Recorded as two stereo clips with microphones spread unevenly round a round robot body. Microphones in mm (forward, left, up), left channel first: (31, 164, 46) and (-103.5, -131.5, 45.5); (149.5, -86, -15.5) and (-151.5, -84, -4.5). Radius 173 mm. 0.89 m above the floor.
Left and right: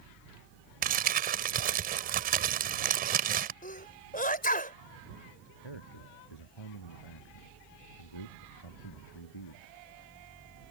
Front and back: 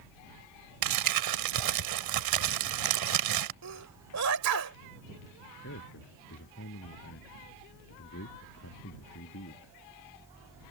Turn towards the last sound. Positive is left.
turn(degrees=60)